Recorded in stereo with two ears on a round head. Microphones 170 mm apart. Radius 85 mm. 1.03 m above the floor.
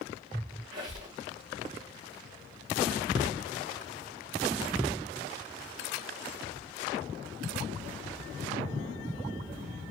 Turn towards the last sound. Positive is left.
turn(degrees=-45)  # may be behind; listen again after turning